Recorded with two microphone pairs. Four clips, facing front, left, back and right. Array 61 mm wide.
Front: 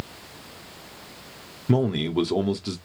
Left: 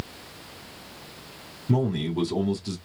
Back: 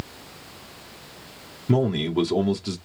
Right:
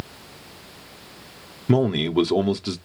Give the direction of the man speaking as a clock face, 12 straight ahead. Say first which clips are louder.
Right 6 dB, back 1 dB; 3 o'clock.